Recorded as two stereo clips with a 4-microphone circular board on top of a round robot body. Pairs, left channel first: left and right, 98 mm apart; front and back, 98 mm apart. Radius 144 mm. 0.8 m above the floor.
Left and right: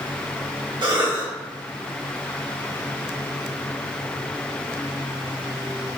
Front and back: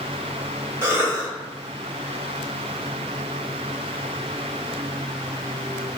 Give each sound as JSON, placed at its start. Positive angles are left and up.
{"t": 0.8, "sound": "a cough", "azimuth_deg": -120, "distance_m": 1.9}